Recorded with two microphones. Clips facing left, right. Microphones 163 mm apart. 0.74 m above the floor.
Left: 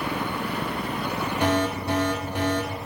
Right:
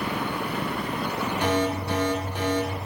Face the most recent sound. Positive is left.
turn(degrees=65)  # may be behind; listen again after turning